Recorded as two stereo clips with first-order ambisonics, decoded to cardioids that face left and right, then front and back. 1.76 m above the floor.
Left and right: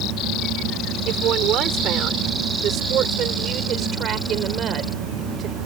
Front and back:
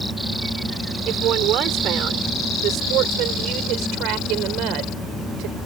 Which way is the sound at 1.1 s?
135° right.